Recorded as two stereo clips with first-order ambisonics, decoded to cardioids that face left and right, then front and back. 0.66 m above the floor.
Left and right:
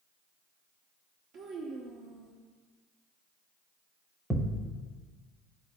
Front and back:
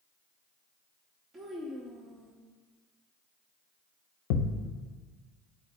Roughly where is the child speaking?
Right.